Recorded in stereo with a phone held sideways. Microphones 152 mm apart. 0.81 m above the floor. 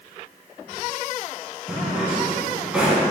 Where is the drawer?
5° right (ahead or behind), 2.5 m.